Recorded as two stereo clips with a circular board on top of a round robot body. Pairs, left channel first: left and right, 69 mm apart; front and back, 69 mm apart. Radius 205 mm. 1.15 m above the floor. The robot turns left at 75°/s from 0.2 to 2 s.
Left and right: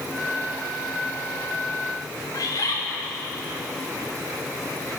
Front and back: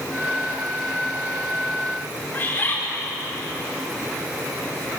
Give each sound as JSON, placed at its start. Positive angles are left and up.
{"t": 2.3, "sound": "a bird", "azimuth_deg": 60, "distance_m": 4.5}